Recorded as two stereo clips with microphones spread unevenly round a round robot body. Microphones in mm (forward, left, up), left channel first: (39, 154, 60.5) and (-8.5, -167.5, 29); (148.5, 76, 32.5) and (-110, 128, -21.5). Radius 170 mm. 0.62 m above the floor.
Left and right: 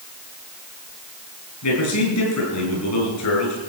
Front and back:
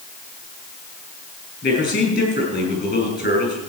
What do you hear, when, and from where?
1.6 s a man speaking: 45° left, 6.5 m